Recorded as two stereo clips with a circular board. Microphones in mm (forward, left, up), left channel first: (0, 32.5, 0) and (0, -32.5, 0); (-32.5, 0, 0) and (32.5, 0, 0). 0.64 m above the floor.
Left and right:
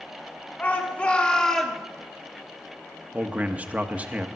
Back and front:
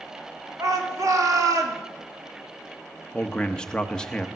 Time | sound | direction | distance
0.6 | a shout | 30° left | 2.5 m
3.1 | a man speaking | 120° right | 0.8 m